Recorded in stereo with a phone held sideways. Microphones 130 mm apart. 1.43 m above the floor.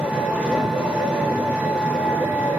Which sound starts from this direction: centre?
An engine running, at 0.0 s.